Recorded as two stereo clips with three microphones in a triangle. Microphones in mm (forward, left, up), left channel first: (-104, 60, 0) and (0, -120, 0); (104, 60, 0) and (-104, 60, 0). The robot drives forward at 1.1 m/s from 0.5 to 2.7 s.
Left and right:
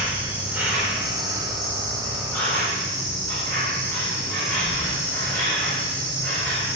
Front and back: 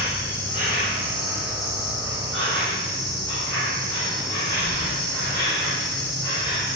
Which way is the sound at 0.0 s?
140° right.